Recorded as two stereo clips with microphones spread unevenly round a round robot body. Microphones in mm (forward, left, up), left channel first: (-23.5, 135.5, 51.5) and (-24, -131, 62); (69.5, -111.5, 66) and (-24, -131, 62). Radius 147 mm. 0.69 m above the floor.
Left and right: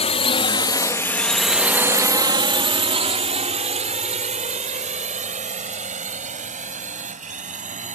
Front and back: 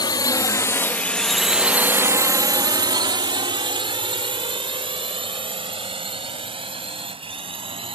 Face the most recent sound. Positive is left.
turn(degrees=-150)